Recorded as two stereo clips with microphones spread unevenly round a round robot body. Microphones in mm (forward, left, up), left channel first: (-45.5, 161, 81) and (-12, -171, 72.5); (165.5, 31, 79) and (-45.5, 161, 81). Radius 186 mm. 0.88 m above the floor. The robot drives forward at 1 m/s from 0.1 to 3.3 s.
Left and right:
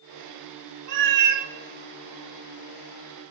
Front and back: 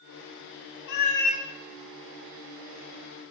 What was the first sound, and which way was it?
A cat meowing, 40° right.